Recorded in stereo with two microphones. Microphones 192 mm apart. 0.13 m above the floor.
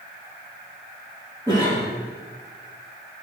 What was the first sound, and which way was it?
A cough, 20° right (ahead or behind).